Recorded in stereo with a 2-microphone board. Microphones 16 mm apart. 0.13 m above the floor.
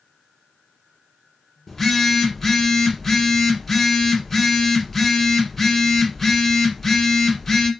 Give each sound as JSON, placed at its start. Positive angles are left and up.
{"t": 1.7, "sound": "a phone buzzing", "side_deg": 10, "distance_m": 1.3}